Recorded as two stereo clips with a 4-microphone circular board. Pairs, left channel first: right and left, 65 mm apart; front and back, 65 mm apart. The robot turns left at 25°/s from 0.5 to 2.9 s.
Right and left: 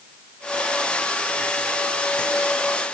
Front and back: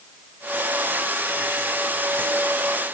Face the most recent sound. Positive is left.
No sound to turn to.